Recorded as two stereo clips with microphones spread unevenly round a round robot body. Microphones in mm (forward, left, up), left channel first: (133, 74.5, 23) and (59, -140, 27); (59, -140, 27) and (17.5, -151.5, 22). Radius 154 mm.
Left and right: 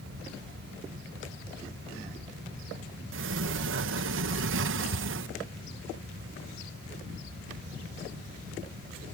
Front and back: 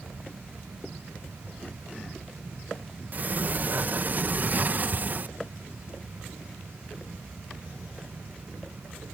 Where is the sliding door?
125° right.